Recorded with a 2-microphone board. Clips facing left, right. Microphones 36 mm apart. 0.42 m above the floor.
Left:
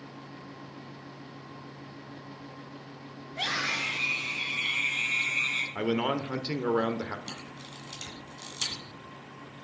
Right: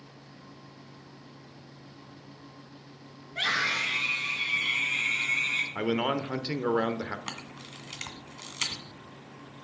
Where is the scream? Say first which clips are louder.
Right 3 dB; 60° right (ahead or behind), 7 m; by 5.7 s 50° right (ahead or behind), 6.5 m.